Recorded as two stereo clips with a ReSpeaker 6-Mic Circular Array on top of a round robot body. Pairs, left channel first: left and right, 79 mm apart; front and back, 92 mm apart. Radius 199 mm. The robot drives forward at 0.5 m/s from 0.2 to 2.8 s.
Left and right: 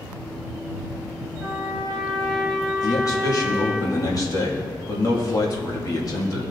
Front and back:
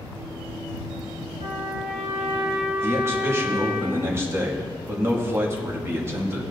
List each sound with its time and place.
1.4 s a trumpet: 175° left, 0.8 m
2.8 s a man speaking: 120° left, 2 m